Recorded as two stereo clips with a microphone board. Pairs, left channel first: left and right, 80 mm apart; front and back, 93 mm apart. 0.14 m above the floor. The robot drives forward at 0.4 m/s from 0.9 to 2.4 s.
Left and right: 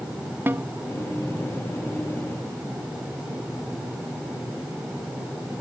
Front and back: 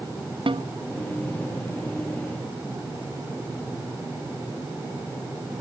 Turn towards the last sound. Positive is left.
turn(degrees=-160)